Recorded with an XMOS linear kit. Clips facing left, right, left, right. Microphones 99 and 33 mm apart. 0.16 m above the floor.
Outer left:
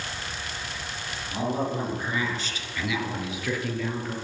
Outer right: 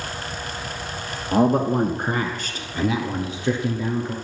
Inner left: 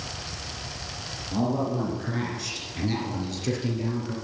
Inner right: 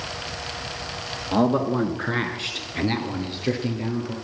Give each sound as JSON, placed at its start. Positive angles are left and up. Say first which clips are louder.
{"t": 1.3, "sound": "a man speaking", "louder": "outer right 10 dB, inner right 6 dB", "side_deg": -55, "distance_m": 2.0}